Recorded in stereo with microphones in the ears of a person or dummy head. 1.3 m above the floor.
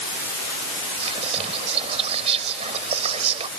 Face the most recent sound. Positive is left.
turn(degrees=-35)  # may be behind; listen again after turning